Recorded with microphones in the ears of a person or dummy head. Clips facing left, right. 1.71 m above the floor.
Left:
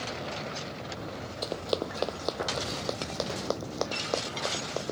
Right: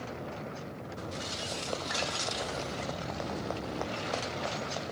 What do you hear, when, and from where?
1.4 s running footsteps: 55° left (ahead or behind); by 4.9 s 50° left (ahead or behind)